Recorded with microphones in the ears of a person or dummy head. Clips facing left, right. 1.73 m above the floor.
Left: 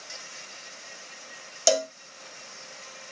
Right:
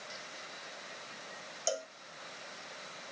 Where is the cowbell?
85° left.